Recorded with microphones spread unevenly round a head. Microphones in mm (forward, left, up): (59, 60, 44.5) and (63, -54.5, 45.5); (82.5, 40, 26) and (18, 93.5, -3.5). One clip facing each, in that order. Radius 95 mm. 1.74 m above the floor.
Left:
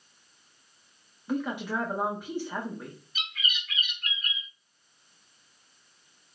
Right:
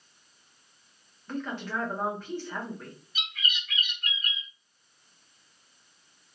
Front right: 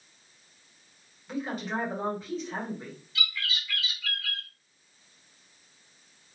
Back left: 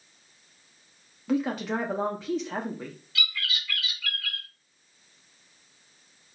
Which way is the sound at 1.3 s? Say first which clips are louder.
Left 4 dB, back left 6 dB; 175° left.